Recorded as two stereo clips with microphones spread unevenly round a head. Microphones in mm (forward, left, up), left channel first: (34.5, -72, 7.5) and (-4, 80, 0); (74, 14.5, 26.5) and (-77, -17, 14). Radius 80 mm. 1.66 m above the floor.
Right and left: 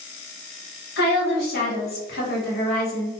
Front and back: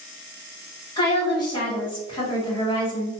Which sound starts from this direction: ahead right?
A woman speaking, at 1.0 s.